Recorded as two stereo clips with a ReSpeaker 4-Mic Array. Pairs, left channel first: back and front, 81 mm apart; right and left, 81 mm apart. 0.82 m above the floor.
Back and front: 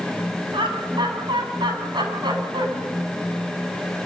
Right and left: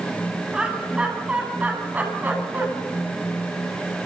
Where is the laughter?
10° left, 7.5 m; by 2.7 s 25° left, 8.5 m.